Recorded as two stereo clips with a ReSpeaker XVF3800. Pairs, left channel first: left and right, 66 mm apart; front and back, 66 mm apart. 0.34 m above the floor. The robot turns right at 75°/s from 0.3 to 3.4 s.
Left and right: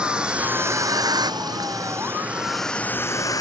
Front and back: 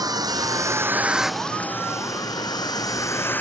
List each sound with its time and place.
0.0 s a vehicle: 165° right; by 3.4 s 60° left